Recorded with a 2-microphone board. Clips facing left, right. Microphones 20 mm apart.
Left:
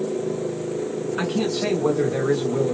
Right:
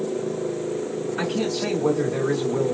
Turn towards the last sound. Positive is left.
turn(degrees=30)  # may be behind; listen again after turning